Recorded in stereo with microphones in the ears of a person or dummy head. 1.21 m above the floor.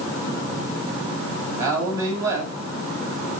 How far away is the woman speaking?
About 7.5 m.